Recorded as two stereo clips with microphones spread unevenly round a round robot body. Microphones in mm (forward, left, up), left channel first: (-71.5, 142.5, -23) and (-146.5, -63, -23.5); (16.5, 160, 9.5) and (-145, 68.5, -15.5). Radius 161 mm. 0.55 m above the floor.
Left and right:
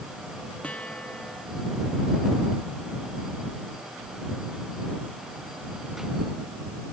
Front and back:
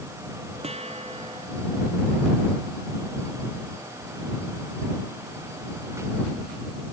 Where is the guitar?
155° left.